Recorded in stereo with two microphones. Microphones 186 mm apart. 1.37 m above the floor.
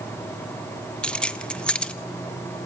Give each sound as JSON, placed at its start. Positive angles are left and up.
{"t": 1.0, "sound": "keys jangling", "side_deg": 5, "distance_m": 0.8}